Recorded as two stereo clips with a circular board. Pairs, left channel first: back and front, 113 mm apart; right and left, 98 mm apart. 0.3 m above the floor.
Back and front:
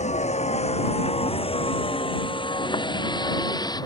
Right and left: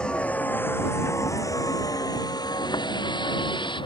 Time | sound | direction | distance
0.0 | a vehicle | 170° right | ?